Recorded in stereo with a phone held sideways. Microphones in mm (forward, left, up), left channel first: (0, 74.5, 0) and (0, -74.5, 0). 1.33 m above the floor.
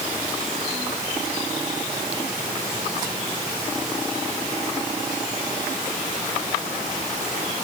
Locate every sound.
Only background noise.